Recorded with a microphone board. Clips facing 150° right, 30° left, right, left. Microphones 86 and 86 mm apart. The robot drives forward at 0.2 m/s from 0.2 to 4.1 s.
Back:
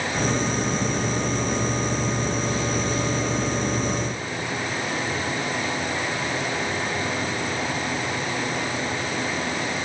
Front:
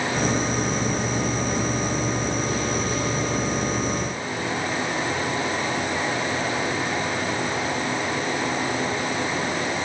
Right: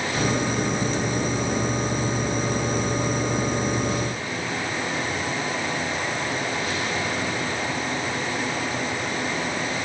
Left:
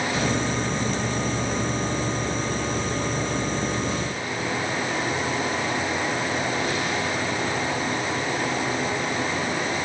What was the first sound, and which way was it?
Only background noise.